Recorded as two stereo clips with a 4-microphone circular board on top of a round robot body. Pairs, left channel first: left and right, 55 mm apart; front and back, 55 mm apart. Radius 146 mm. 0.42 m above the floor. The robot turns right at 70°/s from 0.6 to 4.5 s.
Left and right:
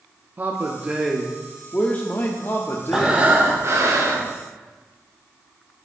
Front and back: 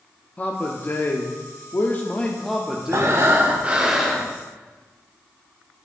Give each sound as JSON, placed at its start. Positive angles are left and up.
{"t": 0.4, "sound": "a man speaking", "azimuth_deg": -50, "distance_m": 1.0}
{"t": 2.9, "sound": "breathing", "azimuth_deg": -170, "distance_m": 1.4}